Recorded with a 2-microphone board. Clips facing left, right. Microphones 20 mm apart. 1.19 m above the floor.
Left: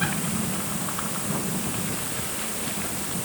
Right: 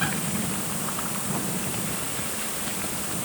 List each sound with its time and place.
Only background noise.